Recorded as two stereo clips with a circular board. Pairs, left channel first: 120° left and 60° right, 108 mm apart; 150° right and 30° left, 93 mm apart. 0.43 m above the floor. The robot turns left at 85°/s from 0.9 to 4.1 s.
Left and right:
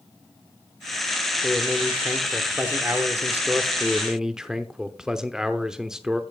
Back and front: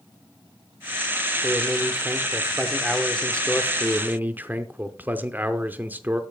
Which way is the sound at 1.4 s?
70° left.